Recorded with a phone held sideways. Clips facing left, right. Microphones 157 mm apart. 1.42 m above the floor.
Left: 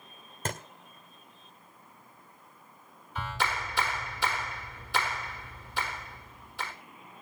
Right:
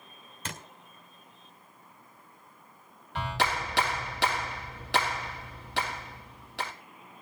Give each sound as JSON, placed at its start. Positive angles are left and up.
{"t": 0.5, "sound": "a thud", "side_deg": 45, "distance_m": 1.5}
{"t": 3.1, "sound": "a clap", "side_deg": -75, "distance_m": 1.7}